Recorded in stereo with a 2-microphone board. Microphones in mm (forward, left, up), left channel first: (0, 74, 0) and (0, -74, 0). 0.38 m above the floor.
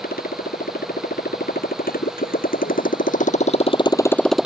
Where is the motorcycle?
85° left; by 4.5 s 5° right (ahead or behind).